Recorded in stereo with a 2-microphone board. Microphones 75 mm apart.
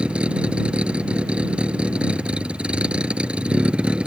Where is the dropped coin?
I don't hear a dropped coin.